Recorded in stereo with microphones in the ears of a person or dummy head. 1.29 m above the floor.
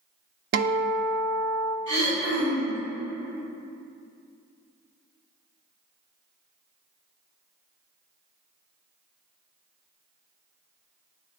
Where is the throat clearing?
50° right (ahead or behind), 3 m.